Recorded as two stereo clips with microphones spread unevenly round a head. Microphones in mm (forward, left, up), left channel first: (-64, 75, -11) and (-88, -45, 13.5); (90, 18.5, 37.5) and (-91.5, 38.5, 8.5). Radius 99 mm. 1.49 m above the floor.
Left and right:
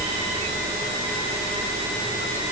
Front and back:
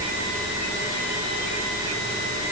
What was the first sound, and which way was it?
Only background noise.